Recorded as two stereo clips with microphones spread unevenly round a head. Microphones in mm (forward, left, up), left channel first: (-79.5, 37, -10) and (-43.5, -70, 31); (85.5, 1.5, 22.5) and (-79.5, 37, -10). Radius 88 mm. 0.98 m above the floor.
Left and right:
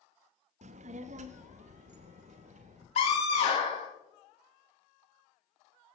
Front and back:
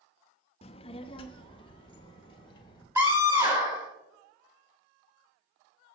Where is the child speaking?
65° right, 0.5 m; by 2.9 s 75° right, 1.9 m.